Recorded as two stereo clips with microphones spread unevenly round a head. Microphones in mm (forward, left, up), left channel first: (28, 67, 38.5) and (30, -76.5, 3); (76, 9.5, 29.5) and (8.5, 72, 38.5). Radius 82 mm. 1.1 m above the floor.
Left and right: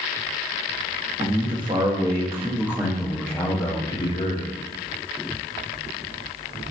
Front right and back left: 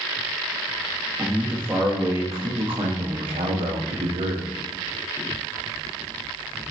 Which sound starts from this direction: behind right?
A man speaking, at 1.2 s.